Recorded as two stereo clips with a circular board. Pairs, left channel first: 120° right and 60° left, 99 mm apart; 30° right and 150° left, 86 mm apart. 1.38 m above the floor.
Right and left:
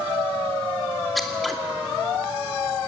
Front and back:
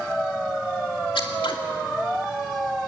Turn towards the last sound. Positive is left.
turn(degrees=-30)